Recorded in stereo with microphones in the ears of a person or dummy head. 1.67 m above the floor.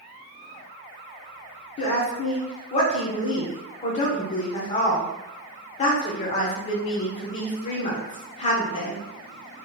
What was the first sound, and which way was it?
A woman speaking, 35° left (ahead or behind).